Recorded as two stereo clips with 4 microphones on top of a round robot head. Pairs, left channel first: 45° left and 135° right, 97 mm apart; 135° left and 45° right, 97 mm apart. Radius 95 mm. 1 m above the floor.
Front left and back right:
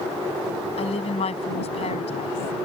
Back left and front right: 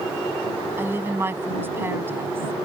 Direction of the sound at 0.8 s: 25° left.